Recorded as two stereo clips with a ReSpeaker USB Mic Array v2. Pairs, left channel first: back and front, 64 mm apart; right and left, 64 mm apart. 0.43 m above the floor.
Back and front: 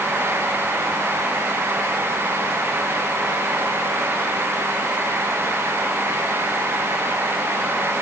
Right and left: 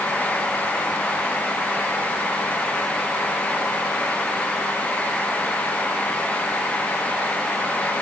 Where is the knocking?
No knocking in this recording.